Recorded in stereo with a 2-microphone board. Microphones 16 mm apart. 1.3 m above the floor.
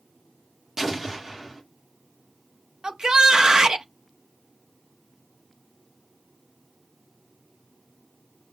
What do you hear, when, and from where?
0.8 s an explosion: 25° right (ahead or behind), 1.8 m
2.8 s a shout: 45° right (ahead or behind), 1.0 m